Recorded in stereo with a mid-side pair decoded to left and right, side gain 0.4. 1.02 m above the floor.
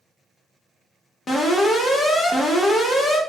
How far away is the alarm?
About 1.3 m.